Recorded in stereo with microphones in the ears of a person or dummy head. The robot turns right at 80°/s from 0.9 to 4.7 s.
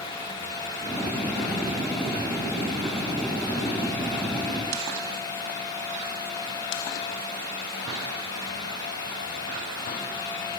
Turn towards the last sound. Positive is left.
No sound to turn to.